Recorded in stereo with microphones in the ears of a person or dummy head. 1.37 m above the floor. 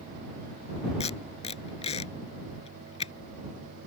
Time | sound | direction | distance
1.0 | tape being pulled | 40° left (ahead or behind) | ?